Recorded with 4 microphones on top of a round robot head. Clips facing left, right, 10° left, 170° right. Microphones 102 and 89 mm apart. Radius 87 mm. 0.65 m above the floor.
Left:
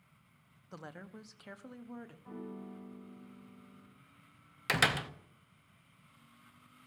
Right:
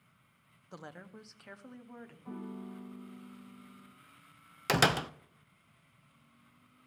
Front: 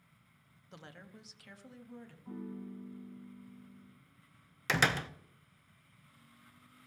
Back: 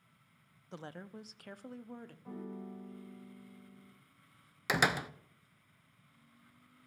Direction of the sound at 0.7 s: 170° right.